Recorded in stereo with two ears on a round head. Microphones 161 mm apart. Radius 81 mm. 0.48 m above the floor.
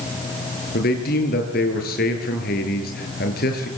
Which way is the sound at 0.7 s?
55° left (ahead or behind).